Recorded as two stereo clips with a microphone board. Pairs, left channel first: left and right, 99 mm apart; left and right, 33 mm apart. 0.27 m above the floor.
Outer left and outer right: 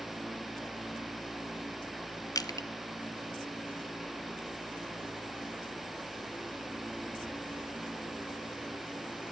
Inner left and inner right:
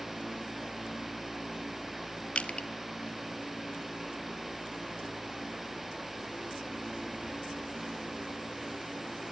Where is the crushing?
40° left (ahead or behind), 0.9 m.